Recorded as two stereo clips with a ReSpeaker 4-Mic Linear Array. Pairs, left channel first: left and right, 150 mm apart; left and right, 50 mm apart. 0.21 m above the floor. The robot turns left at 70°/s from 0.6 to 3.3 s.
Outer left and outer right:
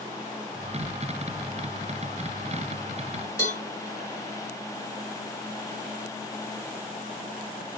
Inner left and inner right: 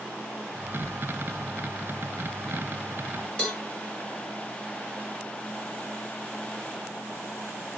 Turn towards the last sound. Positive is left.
turn(degrees=15)  # may be behind; listen again after turning